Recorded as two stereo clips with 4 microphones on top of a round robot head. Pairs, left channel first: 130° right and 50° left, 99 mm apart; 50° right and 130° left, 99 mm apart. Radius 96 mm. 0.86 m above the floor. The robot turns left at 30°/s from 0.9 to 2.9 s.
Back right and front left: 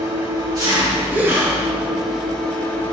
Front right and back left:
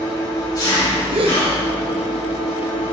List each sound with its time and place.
0.0 s an engine running: straight ahead, 2 m; by 2.9 s 60° right, 2 m
1.1 s a gasp: 125° left, 1.1 m; by 1.4 s 115° left, 1.1 m